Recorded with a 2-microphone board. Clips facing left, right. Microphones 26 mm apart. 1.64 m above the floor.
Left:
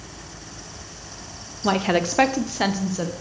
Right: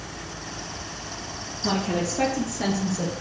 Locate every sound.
1.6 s a woman speaking: 40° left (ahead or behind), 0.6 m